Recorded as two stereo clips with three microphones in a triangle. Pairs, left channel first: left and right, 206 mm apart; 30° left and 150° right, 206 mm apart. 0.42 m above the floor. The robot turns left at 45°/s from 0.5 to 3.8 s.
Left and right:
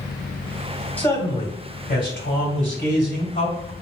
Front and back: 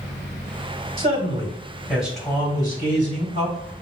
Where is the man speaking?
175° left, 1.9 m; by 3.7 s 50° left, 1.9 m.